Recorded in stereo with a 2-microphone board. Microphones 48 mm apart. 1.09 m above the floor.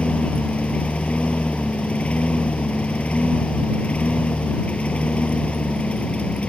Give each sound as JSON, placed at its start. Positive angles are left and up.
{"t": 0.0, "sound": "a lawn mower", "side_deg": 25}